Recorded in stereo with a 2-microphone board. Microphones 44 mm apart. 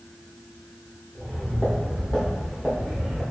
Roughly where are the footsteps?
Left.